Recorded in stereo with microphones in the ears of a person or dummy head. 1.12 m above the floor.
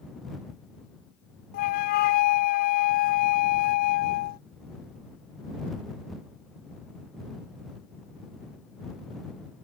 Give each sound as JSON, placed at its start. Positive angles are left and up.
{"t": 1.5, "sound": "a flute", "side_deg": 45}